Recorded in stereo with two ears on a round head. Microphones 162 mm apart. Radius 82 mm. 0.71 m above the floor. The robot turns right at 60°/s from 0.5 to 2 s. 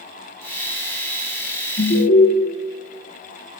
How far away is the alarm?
About 1.2 m.